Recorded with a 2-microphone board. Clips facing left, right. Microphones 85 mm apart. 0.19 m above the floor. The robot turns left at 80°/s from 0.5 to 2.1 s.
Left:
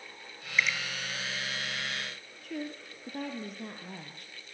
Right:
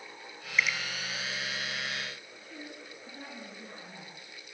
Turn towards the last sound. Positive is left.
turn(degrees=75)  # may be behind; listen again after turning